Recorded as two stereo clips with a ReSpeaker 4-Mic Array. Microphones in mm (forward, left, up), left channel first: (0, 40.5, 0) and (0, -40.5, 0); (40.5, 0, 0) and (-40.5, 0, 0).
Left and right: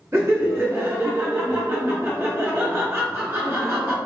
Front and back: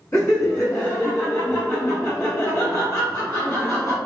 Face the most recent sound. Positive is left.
turn(degrees=-45)